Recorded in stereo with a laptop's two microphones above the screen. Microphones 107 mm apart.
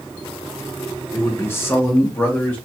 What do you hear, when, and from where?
1.1 s a man speaking: 25° left (ahead or behind), 0.7 m; by 2.6 s 15° left (ahead or behind), 1.3 m